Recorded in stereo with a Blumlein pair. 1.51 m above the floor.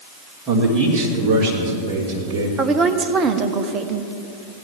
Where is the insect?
I don't hear an insect.